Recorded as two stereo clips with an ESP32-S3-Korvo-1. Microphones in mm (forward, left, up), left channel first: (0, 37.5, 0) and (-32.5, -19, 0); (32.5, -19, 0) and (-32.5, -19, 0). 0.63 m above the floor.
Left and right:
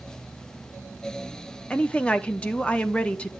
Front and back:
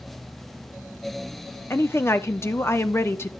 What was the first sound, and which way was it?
A woman speaking, straight ahead.